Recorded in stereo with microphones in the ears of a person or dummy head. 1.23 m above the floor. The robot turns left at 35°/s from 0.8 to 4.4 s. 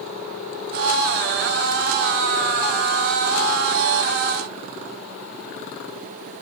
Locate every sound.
Only background noise.